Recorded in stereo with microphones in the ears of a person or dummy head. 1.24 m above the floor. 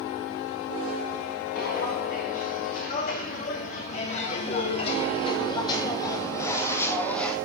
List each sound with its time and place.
1.6 s footsteps: 55° left (ahead or behind), 5 m; by 7.3 s 10° left (ahead or behind), 3.5 m